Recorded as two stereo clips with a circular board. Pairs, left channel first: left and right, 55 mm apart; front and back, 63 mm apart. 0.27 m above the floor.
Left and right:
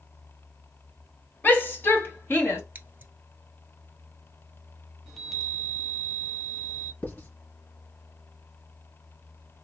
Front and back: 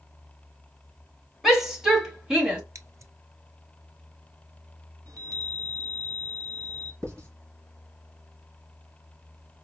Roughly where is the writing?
Behind left.